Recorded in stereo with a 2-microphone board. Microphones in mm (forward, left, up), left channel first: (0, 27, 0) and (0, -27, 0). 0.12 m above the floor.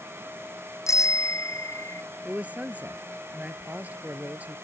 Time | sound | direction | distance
0.9 | a bicycle bell | 75° left (ahead or behind) | ?
2.2 | a man speaking | 30° right (ahead or behind) | ?